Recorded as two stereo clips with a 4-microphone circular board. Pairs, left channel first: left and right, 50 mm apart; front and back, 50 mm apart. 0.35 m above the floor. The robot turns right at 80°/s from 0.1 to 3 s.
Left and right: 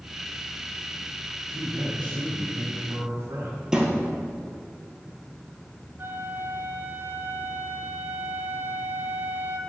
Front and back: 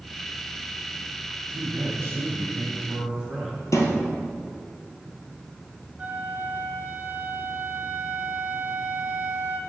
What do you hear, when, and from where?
1.5 s a man speaking: 150° left, 2.5 m; by 3.6 s 90° right, 2.5 m
3.7 s a thud: 10° right, 1.6 m
6.0 s a flute: 125° right, 1.0 m